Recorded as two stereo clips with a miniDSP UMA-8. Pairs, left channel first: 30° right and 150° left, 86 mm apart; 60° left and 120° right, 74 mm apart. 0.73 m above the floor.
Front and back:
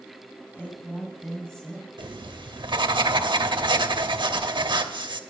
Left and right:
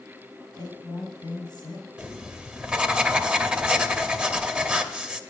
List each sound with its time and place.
0.5 s a woman speaking: 40° left, 4.5 m; by 1.9 s 50° left, 4 m
2.0 s writing: 165° left, 0.9 m